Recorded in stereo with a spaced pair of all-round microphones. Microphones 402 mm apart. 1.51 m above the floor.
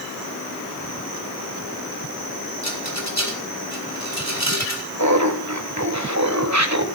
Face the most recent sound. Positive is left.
turn(degrees=-40)  # may be behind; listen again after turning